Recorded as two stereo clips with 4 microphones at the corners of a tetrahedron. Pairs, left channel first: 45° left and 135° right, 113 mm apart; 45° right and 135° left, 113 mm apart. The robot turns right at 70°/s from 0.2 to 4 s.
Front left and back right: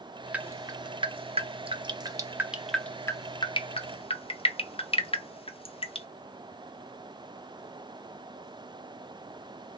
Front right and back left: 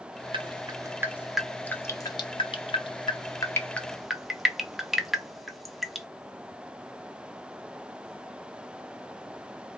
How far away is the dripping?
About 0.6 m.